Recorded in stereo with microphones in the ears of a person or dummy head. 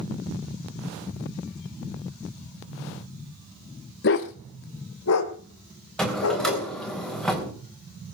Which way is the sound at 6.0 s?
Centre (ahead or behind).